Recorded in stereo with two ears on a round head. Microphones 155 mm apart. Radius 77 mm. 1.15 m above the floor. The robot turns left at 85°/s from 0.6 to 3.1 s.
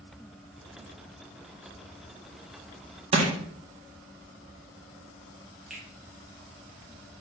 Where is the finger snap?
5° right (ahead or behind), 3 m.